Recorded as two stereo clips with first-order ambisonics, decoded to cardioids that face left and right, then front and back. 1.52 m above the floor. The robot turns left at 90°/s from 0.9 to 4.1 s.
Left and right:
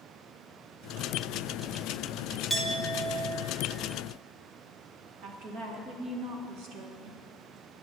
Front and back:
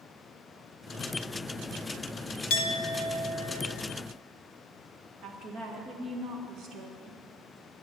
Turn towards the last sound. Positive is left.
turn(degrees=-130)